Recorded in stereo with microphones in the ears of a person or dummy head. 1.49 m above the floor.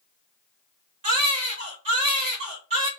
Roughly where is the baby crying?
Right.